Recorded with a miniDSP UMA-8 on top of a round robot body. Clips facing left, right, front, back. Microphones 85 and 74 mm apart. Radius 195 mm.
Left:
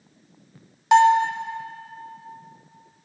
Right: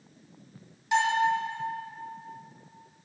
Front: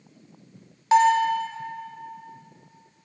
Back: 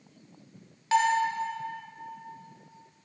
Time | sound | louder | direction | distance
0.9 | a bell | left 9 dB, front 6 dB | 70° left | 0.5 m